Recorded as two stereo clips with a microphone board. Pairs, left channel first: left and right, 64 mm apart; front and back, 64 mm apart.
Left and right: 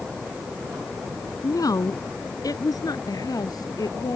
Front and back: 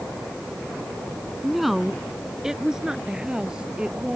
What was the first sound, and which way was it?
A woman speaking, 90° left.